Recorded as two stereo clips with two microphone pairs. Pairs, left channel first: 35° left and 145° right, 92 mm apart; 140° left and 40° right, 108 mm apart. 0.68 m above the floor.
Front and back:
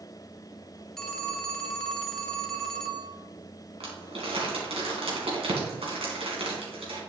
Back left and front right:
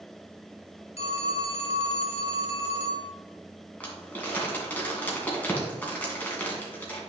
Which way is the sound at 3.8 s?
140° right.